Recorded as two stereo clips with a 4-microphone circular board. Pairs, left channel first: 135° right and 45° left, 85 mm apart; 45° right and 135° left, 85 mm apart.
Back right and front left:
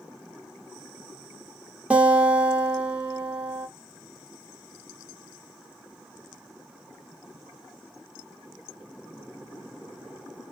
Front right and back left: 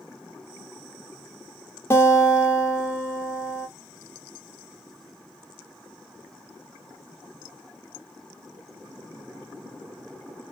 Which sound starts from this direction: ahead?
A guitar, at 1.9 s.